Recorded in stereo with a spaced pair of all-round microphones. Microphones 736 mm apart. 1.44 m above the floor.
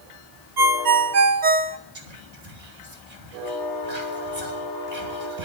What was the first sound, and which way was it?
A ringtone, 75° right (ahead or behind).